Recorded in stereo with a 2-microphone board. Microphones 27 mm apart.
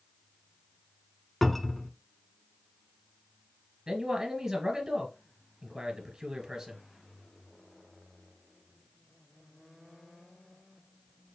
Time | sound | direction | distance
1.4 | a cupboard door | 5° left (ahead or behind) | 0.6 m
3.9 | a man speaking | 30° right (ahead or behind) | 1.9 m